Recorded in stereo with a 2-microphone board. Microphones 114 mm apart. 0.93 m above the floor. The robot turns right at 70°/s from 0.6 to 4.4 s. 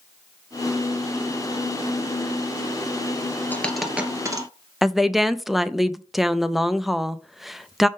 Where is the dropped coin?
15° left (ahead or behind), 1.3 m; by 4.5 s 30° right (ahead or behind), 1.3 m.